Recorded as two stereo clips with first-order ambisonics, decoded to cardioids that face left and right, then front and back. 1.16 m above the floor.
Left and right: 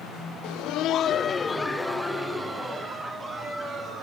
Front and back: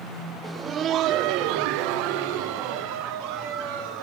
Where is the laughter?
95° left, 0.7 m; by 4.0 s 160° right, 2.5 m.